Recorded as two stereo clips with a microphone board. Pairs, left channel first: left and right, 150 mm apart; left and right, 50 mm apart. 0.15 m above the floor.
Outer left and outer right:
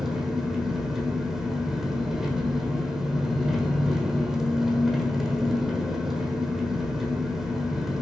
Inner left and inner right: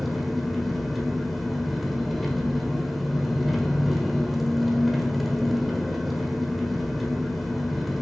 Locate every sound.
0.0 s an engine running: centre (ahead or behind), 1.4 m